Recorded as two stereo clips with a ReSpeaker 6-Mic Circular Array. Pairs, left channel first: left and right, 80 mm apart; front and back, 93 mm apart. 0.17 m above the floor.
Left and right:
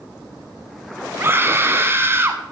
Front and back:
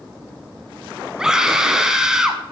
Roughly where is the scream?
Right.